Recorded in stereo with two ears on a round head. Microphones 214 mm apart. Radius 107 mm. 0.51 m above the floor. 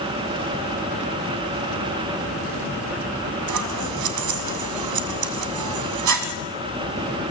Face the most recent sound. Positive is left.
turn(degrees=-85)